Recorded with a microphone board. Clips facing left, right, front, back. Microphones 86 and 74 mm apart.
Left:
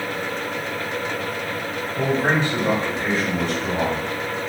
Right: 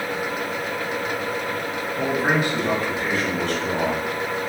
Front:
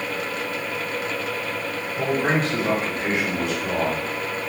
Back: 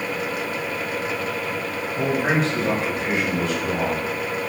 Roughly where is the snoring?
I don't hear snoring.